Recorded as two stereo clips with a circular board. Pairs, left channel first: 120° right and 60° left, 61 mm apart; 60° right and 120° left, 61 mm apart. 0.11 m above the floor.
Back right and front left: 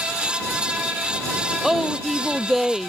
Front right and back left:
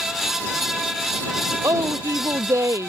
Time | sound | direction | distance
1.6 | a woman speaking | 145° left | ?